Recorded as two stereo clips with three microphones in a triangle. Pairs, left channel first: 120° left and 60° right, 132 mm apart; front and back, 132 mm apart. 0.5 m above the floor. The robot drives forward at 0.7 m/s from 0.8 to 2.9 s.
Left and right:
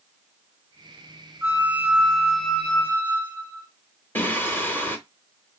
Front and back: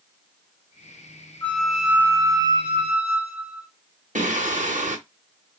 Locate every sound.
1.4 s a flute: 45° right, 0.9 m; by 3.7 s 165° right, 1.2 m
4.2 s singing: 165° right, 1.0 m